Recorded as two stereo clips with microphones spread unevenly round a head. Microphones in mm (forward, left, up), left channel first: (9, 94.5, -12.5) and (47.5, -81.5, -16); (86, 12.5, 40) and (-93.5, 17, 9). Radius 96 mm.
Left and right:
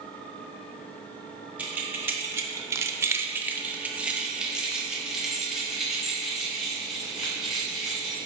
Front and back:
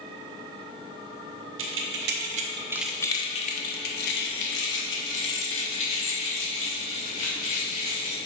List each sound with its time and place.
1.6 s keys jangling: 160° right, 0.9 m; by 8.2 s 10° left, 3.5 m